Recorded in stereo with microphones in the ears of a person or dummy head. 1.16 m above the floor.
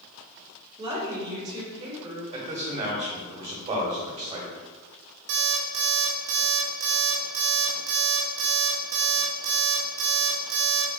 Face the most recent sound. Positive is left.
turn(degrees=-60)  # may be behind; listen again after turning